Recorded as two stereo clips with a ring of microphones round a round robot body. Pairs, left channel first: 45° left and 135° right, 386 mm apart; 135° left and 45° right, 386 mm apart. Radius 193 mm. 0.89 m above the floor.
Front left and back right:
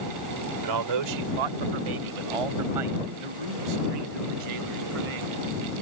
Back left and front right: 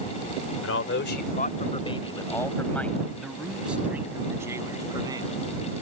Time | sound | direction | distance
0.6 | a man speaking | 170° right | ?